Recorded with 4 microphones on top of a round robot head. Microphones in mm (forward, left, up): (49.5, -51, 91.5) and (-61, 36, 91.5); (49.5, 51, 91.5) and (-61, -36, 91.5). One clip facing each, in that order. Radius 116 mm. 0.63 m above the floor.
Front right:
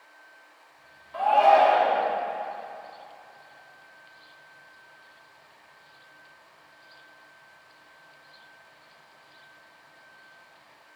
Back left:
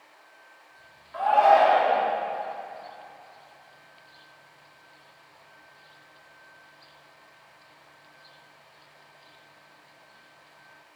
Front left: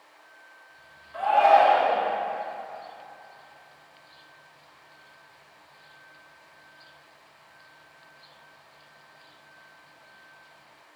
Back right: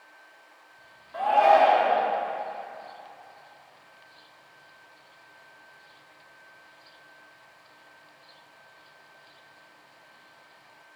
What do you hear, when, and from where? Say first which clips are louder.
1.1 s a shout: even, front left 1 dB; 105° right, 1.9 m